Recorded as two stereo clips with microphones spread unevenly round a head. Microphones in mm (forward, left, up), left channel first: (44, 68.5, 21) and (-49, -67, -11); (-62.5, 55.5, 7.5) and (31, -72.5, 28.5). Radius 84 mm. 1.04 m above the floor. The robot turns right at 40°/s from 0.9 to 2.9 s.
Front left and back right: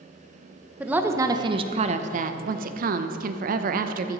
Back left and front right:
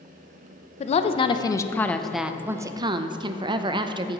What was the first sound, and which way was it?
A woman speaking, 165° left.